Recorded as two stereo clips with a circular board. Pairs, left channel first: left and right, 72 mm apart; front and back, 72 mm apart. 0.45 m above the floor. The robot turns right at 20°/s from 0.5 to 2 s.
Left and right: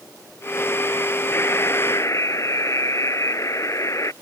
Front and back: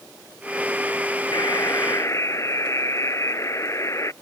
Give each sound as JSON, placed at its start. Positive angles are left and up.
{"t": 1.3, "sound": "a buzzer", "azimuth_deg": 30}